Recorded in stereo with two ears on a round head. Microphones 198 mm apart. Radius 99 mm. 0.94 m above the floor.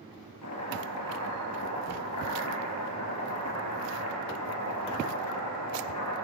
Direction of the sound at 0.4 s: 75° left (ahead or behind).